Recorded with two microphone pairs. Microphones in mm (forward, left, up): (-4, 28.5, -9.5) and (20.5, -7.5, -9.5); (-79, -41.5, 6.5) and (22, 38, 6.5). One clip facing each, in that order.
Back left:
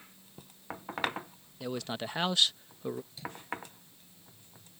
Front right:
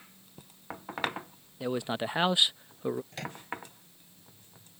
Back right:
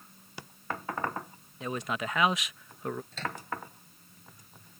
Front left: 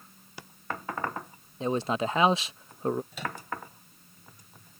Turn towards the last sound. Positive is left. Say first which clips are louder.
# front right 3 dB, front left 1 dB
turn(degrees=-40)